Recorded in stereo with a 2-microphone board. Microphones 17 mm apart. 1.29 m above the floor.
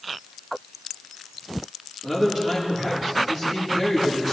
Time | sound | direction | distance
2.0 | a man speaking | 40° right (ahead or behind) | 4 m